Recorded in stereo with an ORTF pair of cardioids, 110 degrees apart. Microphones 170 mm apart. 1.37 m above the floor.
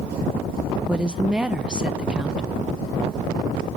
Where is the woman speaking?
5° right, 0.9 m.